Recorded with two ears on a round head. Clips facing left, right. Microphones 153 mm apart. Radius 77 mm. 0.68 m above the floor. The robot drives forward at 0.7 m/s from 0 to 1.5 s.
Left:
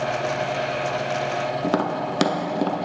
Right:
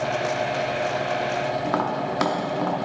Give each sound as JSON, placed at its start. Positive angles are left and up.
{"t": 1.6, "sound": "tapping", "side_deg": 35, "distance_m": 0.7}